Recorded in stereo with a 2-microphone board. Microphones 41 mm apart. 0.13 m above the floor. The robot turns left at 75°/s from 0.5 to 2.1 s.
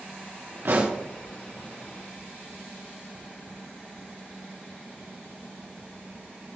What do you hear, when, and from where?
0.7 s a pop: 65° right (ahead or behind), 3 m; by 1.0 s 40° right (ahead or behind), 3 m